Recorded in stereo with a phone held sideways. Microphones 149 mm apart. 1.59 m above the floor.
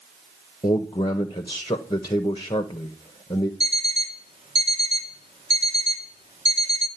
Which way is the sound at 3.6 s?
45° right (ahead or behind).